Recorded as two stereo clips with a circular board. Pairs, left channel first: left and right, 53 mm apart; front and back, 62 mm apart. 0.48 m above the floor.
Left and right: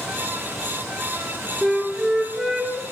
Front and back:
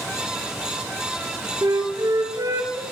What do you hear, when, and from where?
1.6 s a flute: 170° right, 2 m